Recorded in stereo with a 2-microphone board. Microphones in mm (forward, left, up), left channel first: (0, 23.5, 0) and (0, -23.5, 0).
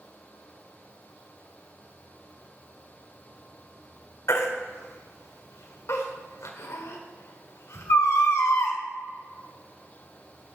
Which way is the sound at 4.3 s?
85° left.